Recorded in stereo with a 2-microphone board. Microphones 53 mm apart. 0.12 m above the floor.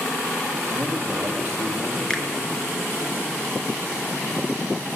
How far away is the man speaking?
About 5 m.